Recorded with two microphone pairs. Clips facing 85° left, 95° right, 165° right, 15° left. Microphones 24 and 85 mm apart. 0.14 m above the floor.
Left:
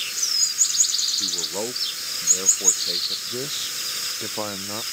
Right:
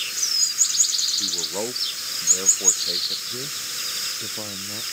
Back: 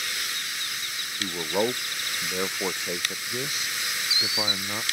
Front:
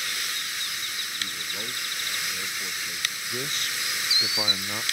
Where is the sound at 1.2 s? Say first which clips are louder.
Even, back 15 dB; 175° left.